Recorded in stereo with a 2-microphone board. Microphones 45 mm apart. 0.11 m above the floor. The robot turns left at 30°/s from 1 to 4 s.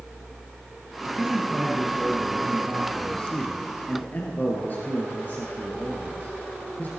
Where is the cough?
No cough in this recording.